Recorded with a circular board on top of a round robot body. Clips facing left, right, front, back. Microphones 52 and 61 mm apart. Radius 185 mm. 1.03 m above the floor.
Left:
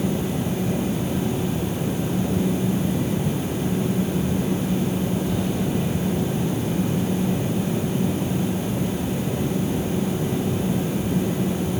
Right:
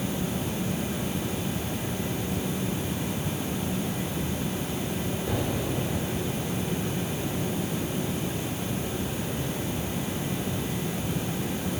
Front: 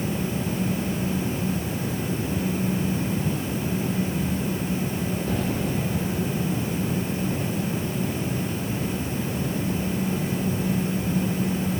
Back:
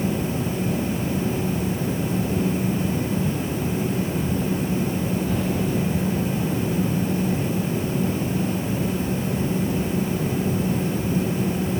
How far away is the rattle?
I don't hear a rattle.